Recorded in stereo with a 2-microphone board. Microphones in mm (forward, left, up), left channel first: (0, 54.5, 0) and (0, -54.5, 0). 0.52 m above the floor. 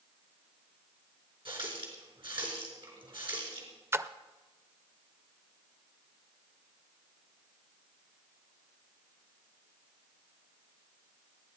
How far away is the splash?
About 0.5 m.